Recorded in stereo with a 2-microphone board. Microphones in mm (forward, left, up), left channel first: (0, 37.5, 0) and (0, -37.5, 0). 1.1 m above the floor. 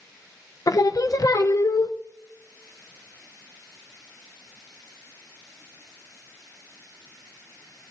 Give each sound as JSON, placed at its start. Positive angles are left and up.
{"t": 0.7, "sound": "singing", "side_deg": 50, "distance_m": 0.5}